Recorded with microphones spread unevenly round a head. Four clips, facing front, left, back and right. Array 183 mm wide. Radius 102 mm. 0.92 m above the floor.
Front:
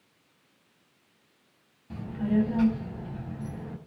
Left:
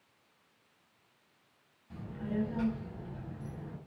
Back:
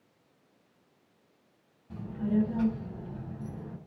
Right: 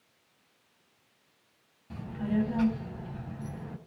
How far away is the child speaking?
About 5 m.